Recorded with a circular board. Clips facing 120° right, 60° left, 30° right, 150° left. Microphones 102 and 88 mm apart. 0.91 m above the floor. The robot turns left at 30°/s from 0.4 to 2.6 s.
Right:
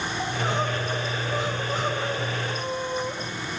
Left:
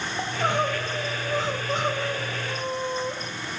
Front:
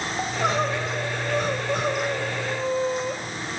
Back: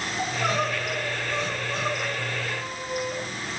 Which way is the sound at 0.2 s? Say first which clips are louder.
Left 3 dB, front 2 dB; 30° left.